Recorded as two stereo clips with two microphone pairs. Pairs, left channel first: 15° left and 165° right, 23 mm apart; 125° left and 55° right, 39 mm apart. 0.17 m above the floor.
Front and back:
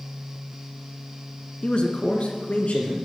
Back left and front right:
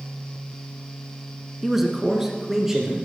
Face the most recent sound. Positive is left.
turn(degrees=25)